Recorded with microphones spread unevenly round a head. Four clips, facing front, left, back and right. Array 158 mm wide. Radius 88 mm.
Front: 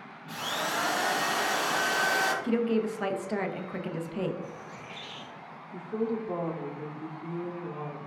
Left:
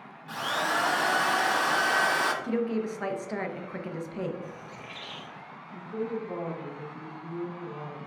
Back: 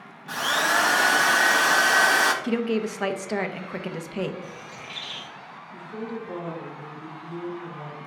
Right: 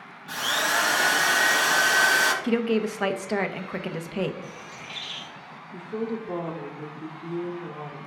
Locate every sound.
0.3 s a drill: 175° left, 1.4 m
2.4 s a woman speaking: 125° right, 0.9 m
4.4 s a bird: 125° left, 2.0 m
5.7 s a woman speaking: 70° right, 1.7 m